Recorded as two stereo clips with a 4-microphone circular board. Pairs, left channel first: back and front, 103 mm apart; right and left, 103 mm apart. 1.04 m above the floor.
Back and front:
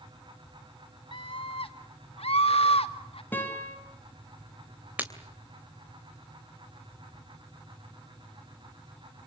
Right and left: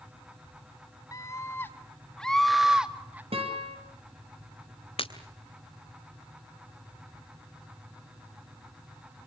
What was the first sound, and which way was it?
A scream, 145° right.